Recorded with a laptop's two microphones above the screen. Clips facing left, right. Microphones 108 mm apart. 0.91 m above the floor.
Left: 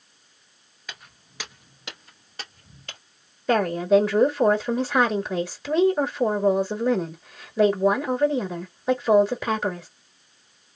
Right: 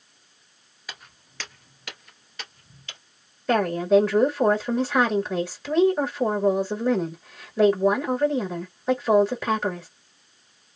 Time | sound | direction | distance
0.9 | footsteps | 5° right (ahead or behind) | 1.0 m
3.5 | a woman speaking | 5° left (ahead or behind) | 1.2 m